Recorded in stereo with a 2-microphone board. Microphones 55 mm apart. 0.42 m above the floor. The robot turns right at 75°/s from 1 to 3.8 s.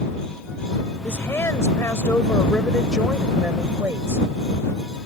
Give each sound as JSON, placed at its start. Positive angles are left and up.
{"t": 1.0, "sound": "a woman speaking", "azimuth_deg": 45}